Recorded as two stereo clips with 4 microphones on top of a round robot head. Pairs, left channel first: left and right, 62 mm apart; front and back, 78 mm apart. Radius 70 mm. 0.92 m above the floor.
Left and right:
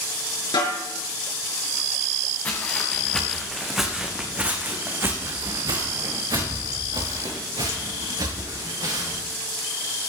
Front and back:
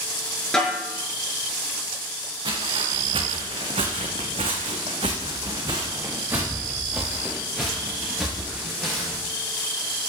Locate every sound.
0.5 s a snare drum: 80° left, 5 m
2.5 s footsteps: 155° left, 4 m; by 9.2 s 90° right, 7.5 m